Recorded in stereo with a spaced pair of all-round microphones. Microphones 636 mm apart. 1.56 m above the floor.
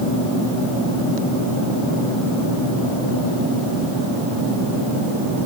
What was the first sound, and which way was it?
Only background noise.